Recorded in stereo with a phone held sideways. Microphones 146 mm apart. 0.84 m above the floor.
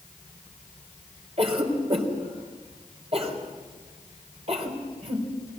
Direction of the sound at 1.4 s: 45° right (ahead or behind).